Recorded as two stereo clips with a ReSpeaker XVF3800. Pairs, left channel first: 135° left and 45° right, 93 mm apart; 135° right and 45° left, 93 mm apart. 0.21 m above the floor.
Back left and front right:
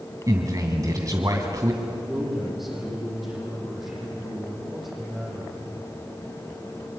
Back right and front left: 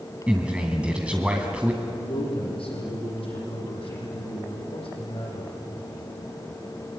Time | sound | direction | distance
0.3 | a man speaking | 25° right | 1.9 m
1.8 | a man speaking | 135° right | 9.5 m